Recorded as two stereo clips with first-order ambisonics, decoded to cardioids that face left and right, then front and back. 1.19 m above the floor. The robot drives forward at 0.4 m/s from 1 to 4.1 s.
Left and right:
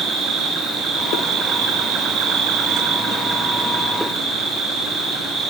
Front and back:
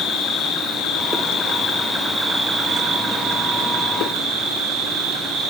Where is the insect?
40° right, 0.7 m; by 5.5 s 155° right, 0.9 m.